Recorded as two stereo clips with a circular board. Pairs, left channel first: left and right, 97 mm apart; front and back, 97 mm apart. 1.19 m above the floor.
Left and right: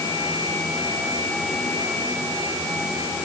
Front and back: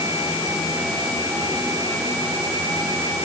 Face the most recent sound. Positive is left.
No sound to turn to.